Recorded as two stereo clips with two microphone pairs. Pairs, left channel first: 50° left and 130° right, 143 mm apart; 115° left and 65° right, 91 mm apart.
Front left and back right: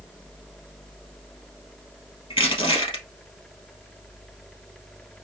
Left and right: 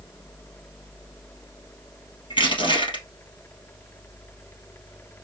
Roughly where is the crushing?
Left.